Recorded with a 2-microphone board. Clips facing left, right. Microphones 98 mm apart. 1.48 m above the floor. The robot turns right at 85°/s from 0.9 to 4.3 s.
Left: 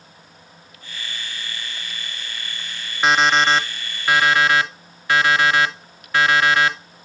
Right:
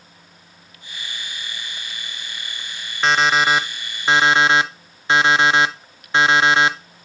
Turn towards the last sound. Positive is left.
turn(degrees=-25)  # may be behind; listen again after turning